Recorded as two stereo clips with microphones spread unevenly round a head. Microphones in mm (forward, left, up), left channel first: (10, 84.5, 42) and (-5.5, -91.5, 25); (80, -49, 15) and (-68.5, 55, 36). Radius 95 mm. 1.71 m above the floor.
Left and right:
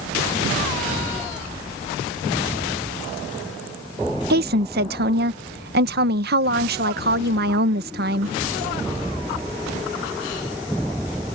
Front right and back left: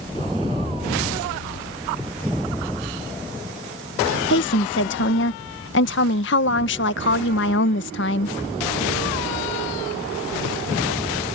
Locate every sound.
4.3 s a woman speaking: 60° right